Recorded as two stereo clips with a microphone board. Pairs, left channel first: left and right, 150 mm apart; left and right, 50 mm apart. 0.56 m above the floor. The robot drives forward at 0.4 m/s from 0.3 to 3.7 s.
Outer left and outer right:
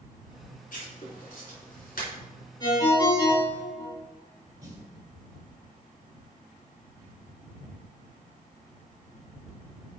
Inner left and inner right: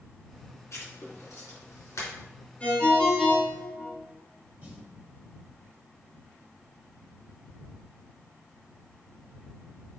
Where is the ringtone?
30° left (ahead or behind), 2.5 m; by 3.9 s 25° left (ahead or behind), 3 m.